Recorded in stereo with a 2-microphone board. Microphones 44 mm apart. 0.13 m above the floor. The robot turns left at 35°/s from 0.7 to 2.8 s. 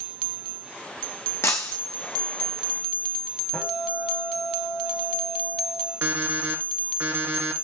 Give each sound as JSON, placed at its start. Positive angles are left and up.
{"t": 1.4, "sound": "breaking glass", "side_deg": 80, "distance_m": 1.5}
{"t": 3.5, "sound": "a guitar", "side_deg": 25, "distance_m": 8.5}
{"t": 6.0, "sound": "an alarm clock", "side_deg": -50, "distance_m": 3.5}